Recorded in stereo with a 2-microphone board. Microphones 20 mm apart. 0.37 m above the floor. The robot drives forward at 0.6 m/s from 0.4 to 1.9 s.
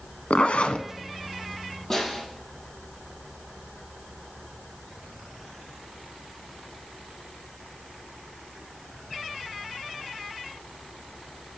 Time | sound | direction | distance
0.3 | a zipper | 75° left (ahead or behind) | 0.5 m
1.9 | a snare drum | 25° left (ahead or behind) | 5 m